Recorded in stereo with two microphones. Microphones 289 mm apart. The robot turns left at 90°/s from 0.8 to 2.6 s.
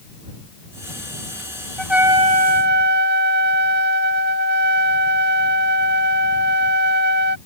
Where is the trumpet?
10° left; by 7.4 s 65° right.